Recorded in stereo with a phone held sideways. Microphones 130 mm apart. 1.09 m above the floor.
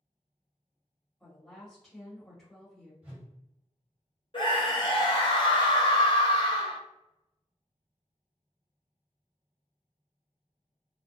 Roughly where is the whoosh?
Centre.